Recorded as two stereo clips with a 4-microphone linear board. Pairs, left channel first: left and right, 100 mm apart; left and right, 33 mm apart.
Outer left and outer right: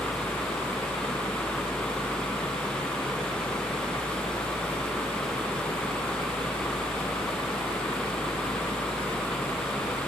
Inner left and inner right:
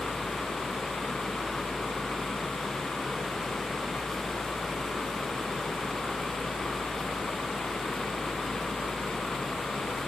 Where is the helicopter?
60° left (ahead or behind).